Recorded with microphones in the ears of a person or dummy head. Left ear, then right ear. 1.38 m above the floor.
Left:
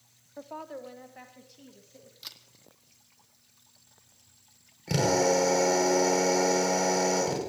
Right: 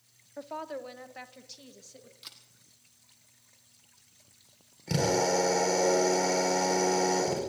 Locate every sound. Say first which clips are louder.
0.4 s a woman speaking: right 2 dB; 10° right (ahead or behind), 0.6 m; by 2.1 s 35° right (ahead or behind), 1.8 m
2.2 s a camera shutter: left 4 dB; 10° left (ahead or behind), 1.3 m
4.9 s a drill: left 2 dB; 10° left (ahead or behind), 5.5 m